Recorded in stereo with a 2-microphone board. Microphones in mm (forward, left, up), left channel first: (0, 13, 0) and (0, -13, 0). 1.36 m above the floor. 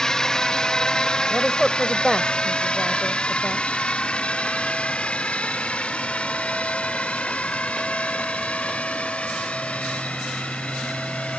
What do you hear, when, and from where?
0.0 s a drone: 20° left (ahead or behind); by 11.4 s 55° left (ahead or behind)
1.3 s a woman speaking: 15° left (ahead or behind)